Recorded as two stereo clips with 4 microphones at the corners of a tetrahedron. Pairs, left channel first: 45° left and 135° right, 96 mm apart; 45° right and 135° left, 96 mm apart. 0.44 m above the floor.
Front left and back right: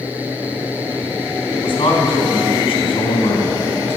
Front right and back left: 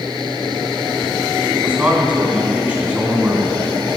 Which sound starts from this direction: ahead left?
A man speaking, at 1.5 s.